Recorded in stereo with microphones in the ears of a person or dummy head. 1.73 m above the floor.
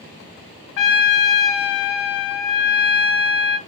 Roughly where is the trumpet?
Left.